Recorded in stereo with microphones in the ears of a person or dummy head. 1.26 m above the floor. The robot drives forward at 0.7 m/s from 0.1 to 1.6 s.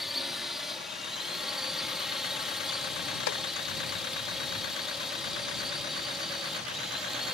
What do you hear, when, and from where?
0.0 s a drone: centre (ahead or behind)
3.3 s chopping: 85° left